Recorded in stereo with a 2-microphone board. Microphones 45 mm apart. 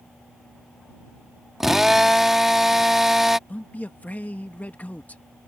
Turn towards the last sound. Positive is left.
turn(degrees=35)  # may be behind; listen again after turning